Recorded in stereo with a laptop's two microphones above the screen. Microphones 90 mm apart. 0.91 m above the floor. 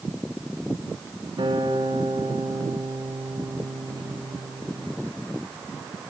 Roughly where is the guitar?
Right.